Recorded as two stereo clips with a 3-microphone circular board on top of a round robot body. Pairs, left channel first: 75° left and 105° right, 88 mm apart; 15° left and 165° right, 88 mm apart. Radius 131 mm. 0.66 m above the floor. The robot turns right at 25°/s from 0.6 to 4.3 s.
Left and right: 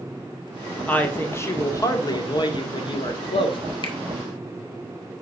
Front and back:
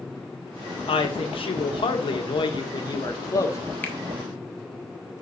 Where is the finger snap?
85° left, 1.6 m; by 4.0 s 90° left, 1.6 m.